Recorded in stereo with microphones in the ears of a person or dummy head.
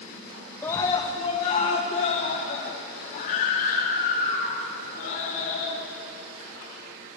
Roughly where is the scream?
Centre.